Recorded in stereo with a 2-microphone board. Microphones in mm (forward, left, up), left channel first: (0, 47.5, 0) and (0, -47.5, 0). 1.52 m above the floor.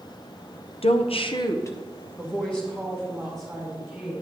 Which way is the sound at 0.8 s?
75° left (ahead or behind).